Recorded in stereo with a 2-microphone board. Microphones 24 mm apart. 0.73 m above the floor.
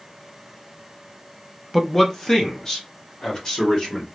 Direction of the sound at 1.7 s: 5° left (ahead or behind).